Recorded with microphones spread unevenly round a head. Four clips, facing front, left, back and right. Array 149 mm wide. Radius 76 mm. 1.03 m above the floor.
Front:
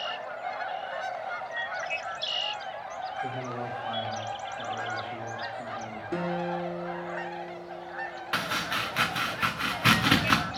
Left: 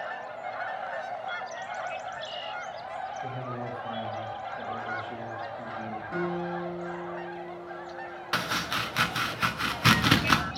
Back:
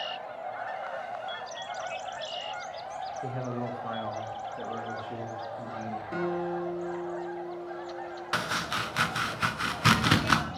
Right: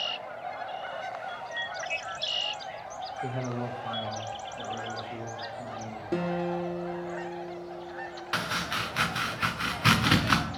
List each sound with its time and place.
3.2 s a man speaking: 125° right, 1.2 m; by 6.0 s 160° left, 2.5 m
6.1 s a guitar: 75° right, 0.9 m
8.3 s chopping: 70° left, 0.7 m